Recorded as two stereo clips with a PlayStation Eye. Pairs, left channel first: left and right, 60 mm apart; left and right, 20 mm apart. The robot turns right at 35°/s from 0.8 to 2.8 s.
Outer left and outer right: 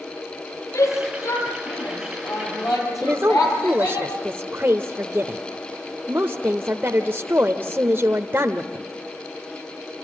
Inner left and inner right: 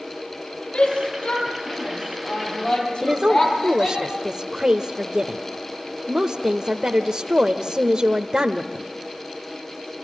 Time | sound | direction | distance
0.7 | a shout | 50° left (ahead or behind) | 8.5 m
3.0 | a woman speaking | 40° right (ahead or behind) | 0.9 m